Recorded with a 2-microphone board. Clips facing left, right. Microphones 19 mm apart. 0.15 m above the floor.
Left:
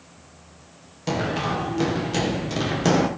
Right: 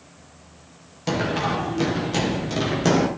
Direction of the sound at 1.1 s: 10° right (ahead or behind).